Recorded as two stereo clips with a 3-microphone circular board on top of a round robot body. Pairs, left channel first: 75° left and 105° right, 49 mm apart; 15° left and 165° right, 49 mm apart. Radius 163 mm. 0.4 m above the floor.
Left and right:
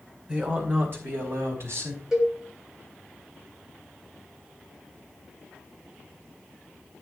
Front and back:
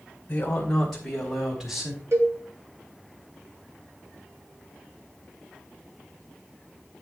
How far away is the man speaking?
About 2.5 m.